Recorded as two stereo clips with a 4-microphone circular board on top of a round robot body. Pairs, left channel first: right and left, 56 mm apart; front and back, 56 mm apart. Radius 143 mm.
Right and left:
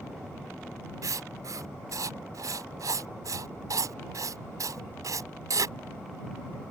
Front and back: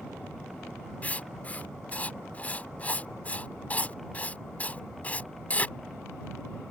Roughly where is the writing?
Ahead left.